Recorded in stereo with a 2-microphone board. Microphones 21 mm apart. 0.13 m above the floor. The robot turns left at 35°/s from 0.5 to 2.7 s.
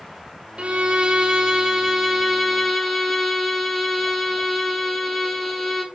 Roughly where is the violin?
Behind right.